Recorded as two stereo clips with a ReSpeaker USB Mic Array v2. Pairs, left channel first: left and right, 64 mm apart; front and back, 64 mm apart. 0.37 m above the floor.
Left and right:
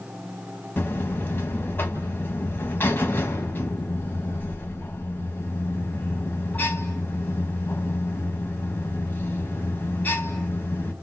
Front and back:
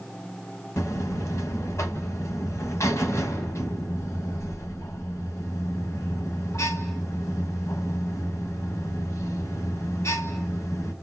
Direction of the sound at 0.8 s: 35° left.